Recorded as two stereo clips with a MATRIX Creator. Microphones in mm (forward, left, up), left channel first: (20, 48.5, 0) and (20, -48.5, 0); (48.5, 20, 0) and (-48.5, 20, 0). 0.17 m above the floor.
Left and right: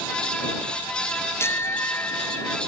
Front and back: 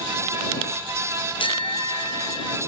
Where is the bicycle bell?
25° left.